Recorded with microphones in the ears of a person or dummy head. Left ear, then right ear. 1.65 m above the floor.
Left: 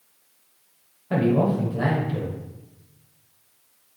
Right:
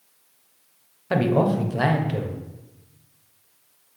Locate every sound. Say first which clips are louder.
1.1 s a man speaking: right 1 dB; 40° right (ahead or behind), 1.0 m